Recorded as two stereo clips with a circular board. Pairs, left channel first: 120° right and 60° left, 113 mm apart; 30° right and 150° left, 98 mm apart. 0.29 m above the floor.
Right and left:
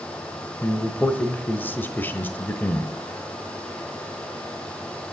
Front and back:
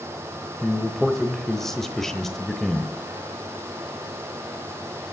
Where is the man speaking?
105° right, 1.0 m.